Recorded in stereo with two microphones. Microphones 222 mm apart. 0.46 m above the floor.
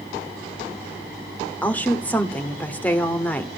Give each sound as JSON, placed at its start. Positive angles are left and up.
{"t": 1.6, "sound": "a woman speaking", "side_deg": 5, "distance_m": 0.9}